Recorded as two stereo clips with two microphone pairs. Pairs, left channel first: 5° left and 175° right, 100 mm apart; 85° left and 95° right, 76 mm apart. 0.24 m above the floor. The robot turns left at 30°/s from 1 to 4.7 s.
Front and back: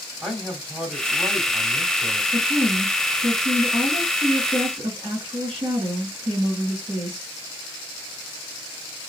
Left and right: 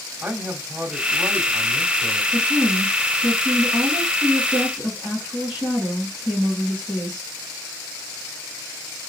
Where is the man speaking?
80° right, 1.2 m; by 2.2 s 120° right, 1.2 m.